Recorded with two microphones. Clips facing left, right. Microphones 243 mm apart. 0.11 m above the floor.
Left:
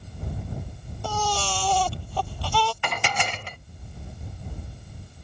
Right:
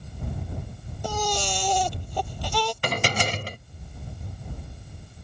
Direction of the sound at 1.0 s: 15° right (ahead or behind).